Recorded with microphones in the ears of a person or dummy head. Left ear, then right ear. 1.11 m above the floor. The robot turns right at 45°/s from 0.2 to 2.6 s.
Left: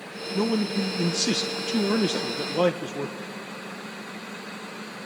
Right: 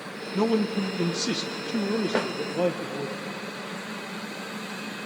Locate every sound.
0.3 s a man speaking: straight ahead, 0.8 m; by 3.1 s 100° left, 0.8 m
2.1 s a snare drum: 40° right (ahead or behind), 0.7 m; by 2.3 s 45° right (ahead or behind), 0.7 m